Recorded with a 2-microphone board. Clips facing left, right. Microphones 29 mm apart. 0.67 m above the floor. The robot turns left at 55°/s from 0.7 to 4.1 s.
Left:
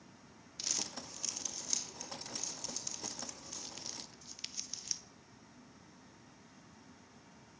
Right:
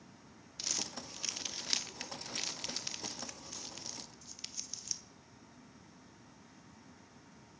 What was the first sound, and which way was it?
Crumpling, 5° right (ahead or behind).